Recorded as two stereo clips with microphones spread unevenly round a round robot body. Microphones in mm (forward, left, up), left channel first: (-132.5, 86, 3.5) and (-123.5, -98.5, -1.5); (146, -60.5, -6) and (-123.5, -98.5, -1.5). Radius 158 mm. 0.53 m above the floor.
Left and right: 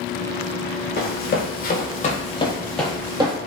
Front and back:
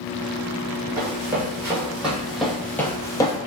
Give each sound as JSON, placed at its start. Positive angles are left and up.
{"t": 1.0, "sound": "running footsteps", "azimuth_deg": 110, "distance_m": 1.1}